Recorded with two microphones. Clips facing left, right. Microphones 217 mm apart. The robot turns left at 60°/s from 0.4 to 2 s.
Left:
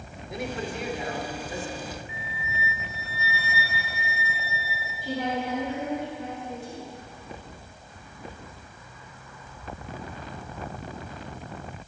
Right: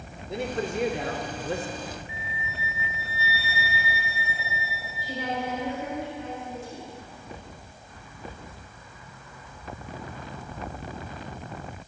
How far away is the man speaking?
About 1.3 m.